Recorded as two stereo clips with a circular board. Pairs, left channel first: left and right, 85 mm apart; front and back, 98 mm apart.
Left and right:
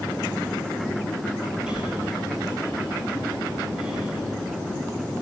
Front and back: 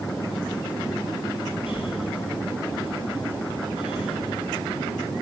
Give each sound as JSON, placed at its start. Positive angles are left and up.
{"t": 1.7, "sound": "breathing", "azimuth_deg": -15, "distance_m": 8.5}